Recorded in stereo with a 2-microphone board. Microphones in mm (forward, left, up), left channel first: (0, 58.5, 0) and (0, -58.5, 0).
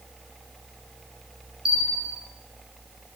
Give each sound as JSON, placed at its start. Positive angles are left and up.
{"t": 1.6, "sound": "a bell", "side_deg": -5, "distance_m": 5.0}